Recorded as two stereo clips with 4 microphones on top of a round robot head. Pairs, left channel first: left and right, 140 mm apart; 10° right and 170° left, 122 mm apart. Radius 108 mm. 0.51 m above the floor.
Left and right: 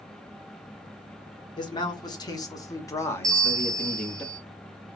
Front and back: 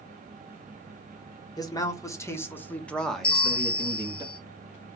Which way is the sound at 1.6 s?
40° left.